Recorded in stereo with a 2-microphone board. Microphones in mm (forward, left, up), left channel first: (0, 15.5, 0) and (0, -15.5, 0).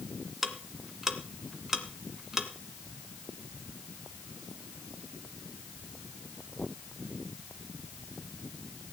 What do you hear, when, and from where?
0.4 s ticking: 15° right (ahead or behind), 1.8 m